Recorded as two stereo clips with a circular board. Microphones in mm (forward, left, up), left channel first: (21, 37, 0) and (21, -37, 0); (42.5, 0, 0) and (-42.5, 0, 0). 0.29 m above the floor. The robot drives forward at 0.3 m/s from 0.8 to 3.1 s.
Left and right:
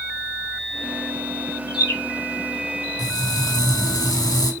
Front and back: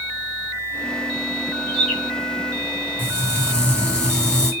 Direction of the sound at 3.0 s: 75° left.